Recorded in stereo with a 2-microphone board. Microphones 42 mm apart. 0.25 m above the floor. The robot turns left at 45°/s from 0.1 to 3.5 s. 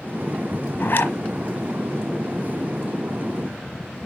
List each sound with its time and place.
0.8 s a zipper: 50° left (ahead or behind), 1.3 m; by 1.2 s 55° left (ahead or behind), 1.3 m